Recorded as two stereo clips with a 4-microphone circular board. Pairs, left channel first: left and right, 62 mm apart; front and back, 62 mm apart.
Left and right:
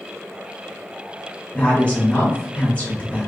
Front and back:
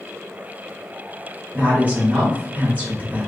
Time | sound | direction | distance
1.5 | a woman speaking | 145° left | 1.8 m